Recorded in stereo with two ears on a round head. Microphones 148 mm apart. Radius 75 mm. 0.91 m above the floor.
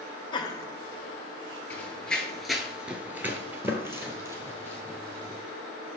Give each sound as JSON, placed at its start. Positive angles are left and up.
{"t": 0.3, "sound": "laughter", "side_deg": 30, "distance_m": 0.7}
{"t": 1.7, "sound": "running footsteps", "side_deg": 10, "distance_m": 1.1}